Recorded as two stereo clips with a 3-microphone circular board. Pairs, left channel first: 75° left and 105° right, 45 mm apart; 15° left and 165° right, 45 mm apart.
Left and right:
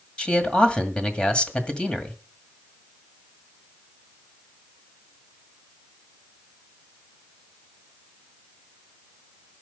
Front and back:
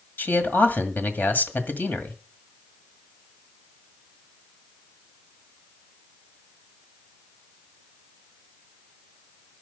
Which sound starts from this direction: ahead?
A man speaking, at 0.2 s.